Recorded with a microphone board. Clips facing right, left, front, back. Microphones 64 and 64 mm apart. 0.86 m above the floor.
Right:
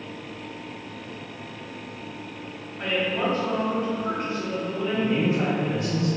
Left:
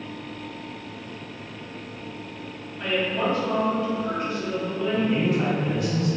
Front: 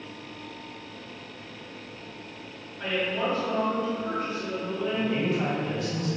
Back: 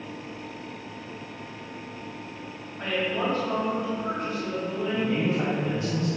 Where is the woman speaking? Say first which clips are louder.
Even, back 1 dB; 150° right, 1.2 m.